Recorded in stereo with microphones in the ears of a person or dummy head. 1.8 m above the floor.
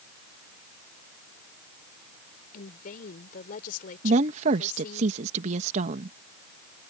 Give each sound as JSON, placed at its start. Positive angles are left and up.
{"t": 2.5, "sound": "a woman speaking", "side_deg": 45}
{"t": 4.0, "sound": "a woman speaking", "side_deg": -50}